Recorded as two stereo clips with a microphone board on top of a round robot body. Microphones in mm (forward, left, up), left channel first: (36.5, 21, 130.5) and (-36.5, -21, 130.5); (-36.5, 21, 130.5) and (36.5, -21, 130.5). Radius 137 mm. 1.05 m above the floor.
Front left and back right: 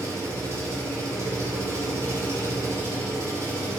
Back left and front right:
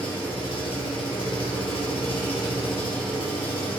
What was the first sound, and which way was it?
An engine running, 150° left.